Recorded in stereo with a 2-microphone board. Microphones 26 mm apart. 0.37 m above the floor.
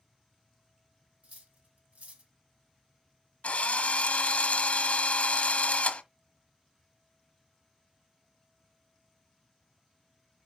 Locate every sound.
1.2 s cutlery clinking: 70° right (ahead or behind), 1.6 m
3.4 s a drill: 70° left (ahead or behind), 1.3 m